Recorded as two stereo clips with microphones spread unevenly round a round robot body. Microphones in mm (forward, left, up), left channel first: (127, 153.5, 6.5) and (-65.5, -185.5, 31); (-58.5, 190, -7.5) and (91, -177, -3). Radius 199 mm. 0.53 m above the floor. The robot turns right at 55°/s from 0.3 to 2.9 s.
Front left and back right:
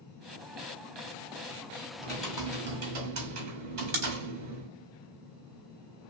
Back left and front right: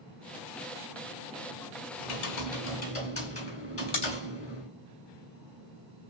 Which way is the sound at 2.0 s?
135° left.